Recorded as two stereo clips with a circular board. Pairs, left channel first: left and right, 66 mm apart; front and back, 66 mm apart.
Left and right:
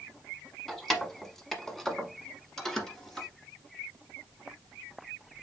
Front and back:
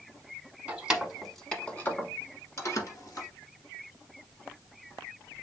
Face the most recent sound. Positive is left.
turn(degrees=5)